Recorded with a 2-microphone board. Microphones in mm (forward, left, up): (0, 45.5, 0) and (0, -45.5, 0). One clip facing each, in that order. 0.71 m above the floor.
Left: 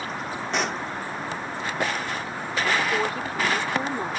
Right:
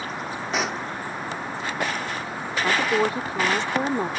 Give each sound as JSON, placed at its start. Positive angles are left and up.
{"t": 0.5, "sound": "a pop", "side_deg": -5}
{"t": 2.6, "sound": "a woman speaking", "side_deg": -25}